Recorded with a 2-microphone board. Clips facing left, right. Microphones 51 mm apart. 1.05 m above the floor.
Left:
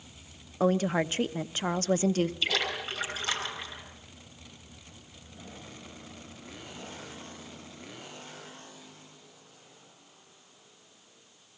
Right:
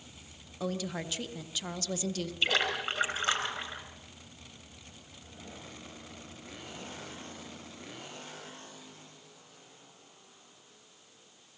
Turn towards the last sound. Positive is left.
turn(degrees=-40)  # may be behind; listen again after turning